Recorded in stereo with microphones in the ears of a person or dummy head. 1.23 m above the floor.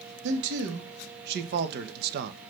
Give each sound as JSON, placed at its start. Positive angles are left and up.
{"t": 0.2, "sound": "a man speaking", "side_deg": -70, "distance_m": 2.0}